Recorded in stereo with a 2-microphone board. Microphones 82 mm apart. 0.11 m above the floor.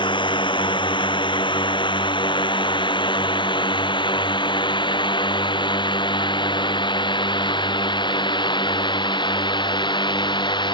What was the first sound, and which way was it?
A drone, 70° left (ahead or behind).